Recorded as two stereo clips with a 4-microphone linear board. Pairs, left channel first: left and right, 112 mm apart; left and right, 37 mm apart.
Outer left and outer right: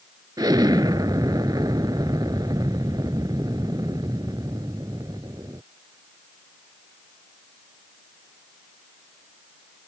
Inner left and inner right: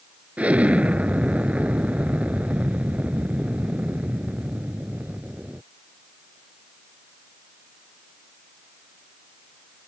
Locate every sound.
0.4 s an explosion: 35° right (ahead or behind)